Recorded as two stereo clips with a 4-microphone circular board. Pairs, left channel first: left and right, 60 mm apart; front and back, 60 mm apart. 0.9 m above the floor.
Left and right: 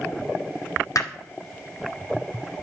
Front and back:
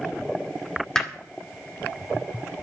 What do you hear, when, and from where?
0.9 s hammering: 80° left, 2 m